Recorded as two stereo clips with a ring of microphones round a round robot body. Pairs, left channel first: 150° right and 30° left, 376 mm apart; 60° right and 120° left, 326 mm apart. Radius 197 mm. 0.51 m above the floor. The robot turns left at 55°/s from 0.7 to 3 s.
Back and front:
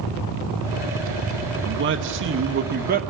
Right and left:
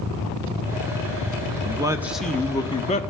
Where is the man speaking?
60° left, 0.9 m; by 3.0 s 15° right, 0.9 m.